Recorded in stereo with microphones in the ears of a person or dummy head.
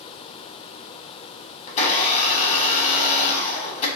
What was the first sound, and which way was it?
A blender, 40° left (ahead or behind).